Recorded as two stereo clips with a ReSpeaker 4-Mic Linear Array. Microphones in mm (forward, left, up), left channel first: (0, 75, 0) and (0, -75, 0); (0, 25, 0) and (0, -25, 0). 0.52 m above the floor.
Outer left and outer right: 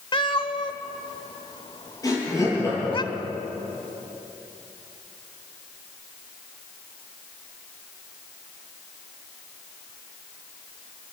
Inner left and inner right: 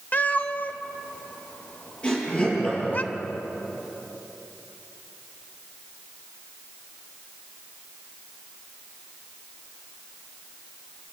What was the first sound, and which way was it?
A cat meowing, 35° left (ahead or behind).